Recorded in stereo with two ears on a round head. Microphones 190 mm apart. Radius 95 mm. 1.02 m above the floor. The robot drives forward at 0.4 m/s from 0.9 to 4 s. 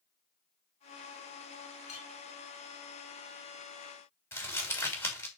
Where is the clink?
35° left (ahead or behind), 3 m.